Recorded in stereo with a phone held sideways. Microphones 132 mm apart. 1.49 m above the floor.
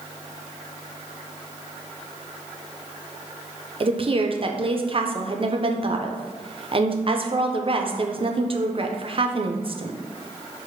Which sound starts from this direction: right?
A woman speaking, at 3.8 s.